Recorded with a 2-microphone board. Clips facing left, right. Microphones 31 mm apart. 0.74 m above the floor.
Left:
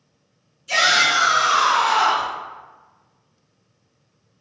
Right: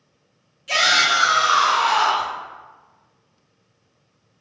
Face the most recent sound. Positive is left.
turn(degrees=5)  # may be behind; listen again after turning